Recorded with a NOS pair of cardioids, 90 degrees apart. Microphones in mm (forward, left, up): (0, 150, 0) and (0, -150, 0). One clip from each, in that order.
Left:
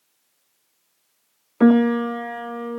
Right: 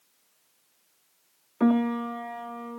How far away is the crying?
No crying in this recording.